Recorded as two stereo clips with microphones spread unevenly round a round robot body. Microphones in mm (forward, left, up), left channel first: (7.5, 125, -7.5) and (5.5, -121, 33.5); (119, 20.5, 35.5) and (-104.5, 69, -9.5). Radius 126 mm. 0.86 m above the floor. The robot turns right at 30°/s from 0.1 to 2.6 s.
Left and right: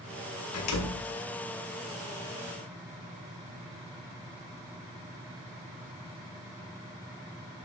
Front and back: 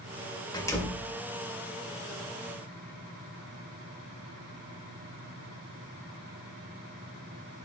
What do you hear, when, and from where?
0.5 s a door slam: 60° left, 2.5 m; by 1.1 s 75° left, 2.5 m